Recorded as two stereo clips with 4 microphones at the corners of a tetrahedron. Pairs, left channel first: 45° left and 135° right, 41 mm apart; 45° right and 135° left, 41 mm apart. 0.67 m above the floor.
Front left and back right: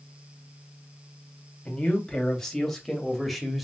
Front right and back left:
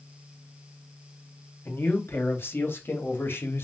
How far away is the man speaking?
About 3.5 m.